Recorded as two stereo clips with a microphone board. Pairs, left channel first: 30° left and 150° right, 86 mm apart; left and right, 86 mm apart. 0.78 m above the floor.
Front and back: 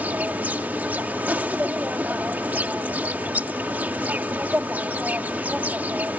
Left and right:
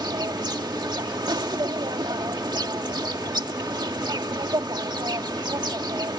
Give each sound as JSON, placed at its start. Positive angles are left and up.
{"t": 0.0, "sound": "an insect", "azimuth_deg": -85}